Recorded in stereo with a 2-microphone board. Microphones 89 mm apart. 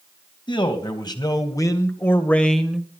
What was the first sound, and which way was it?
A man speaking, 60° left (ahead or behind).